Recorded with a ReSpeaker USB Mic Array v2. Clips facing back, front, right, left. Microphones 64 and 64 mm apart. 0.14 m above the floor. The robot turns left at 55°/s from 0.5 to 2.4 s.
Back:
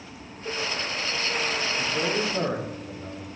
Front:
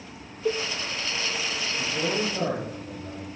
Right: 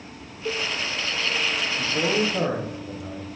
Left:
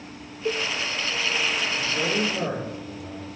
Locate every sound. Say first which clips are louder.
0.5 s a cowbell: front 7 dB, left 2 dB; 20° left, 1.1 m; by 0.6 s 15° left, 1.1 m
1.8 s a man speaking: front 1 dB, right 4 dB; 85° right, 5.5 m; by 3.4 s 120° right, 5.5 m